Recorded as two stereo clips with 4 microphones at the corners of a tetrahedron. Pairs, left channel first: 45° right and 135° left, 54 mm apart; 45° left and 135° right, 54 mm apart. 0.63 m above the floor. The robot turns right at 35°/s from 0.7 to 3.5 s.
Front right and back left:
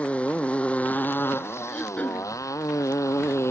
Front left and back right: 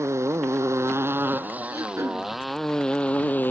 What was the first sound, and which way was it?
A motorcycle, 110° right.